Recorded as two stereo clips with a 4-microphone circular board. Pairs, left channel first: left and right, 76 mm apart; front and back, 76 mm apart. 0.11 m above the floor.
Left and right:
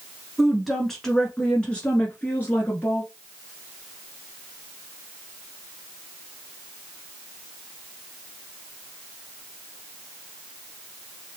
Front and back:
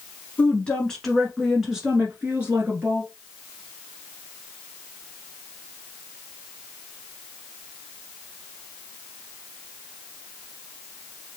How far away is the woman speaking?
About 1.2 m.